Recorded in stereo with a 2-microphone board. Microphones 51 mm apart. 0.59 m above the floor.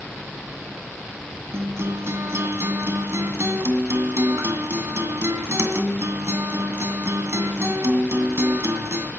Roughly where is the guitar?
Right.